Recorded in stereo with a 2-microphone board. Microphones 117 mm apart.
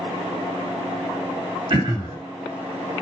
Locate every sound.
1.7 s throat clearing: 45° right (ahead or behind), 2 m